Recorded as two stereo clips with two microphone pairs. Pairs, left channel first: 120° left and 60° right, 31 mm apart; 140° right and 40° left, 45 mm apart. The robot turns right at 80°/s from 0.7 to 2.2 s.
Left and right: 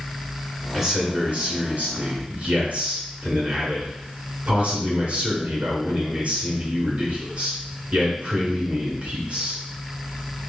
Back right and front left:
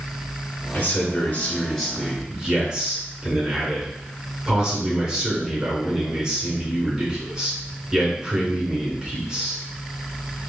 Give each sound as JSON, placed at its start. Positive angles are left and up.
{"t": 0.7, "sound": "a man speaking", "azimuth_deg": -155, "distance_m": 2.0}